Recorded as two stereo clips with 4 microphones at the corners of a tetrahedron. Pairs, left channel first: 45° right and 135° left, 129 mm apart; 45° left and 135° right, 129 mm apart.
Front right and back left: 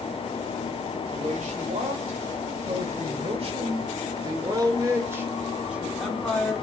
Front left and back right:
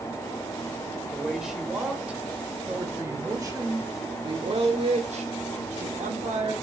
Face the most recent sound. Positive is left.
turn(degrees=-130)